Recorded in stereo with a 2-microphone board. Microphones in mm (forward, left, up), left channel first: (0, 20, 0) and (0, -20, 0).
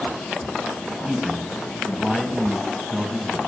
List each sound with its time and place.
1.0 s a man speaking: 10° right (ahead or behind), 1.9 m